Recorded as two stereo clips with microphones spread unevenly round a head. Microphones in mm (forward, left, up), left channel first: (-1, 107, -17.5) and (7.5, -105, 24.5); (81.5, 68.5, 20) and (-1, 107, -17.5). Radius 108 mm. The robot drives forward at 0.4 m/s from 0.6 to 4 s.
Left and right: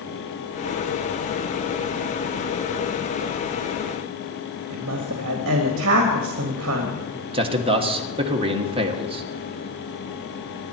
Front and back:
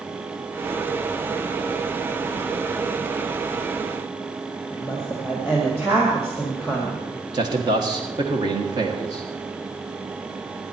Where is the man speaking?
155° right, 1.5 m.